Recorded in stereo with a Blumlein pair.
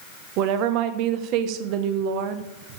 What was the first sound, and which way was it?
A woman speaking, 40° right.